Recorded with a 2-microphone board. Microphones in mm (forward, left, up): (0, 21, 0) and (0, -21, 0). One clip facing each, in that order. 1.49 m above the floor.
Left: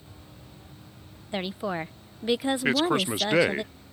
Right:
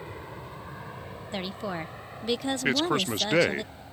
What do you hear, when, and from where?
0.0 s an aircraft: 80° right
1.3 s a woman speaking: 15° left (ahead or behind)
2.6 s a man speaking: 5° left (ahead or behind)